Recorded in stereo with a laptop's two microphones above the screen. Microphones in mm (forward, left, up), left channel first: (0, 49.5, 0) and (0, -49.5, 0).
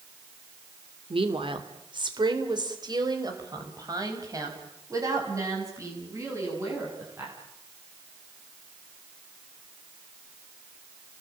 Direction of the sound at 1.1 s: 70° right (ahead or behind).